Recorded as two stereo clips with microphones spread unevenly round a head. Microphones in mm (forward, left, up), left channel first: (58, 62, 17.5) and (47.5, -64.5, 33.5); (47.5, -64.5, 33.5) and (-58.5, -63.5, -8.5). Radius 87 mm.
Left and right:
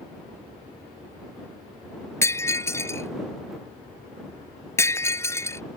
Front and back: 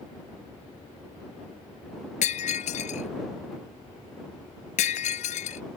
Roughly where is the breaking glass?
Ahead.